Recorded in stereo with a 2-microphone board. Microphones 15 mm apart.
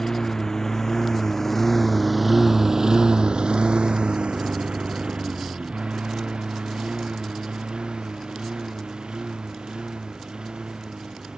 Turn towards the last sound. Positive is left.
turn(degrees=-55)  # may be behind; listen again after turning